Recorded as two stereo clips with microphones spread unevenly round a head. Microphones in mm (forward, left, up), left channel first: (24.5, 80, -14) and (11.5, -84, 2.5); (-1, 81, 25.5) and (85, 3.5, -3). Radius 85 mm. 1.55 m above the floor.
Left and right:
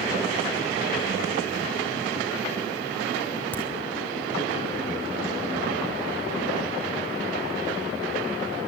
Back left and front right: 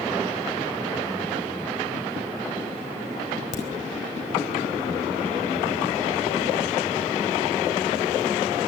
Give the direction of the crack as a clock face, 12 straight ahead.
6 o'clock.